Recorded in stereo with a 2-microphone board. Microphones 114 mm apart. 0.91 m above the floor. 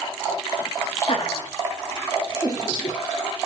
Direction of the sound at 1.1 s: 60° left (ahead or behind).